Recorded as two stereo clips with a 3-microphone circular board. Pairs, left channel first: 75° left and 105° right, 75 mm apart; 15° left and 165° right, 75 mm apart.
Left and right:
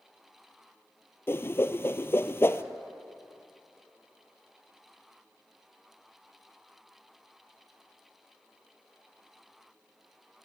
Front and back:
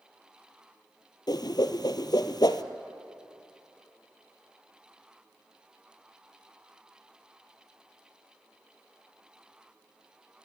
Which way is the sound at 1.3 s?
20° left.